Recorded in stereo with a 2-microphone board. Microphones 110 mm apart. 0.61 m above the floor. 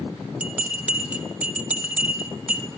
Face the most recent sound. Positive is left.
turn(degrees=-10)  # may be behind; listen again after turning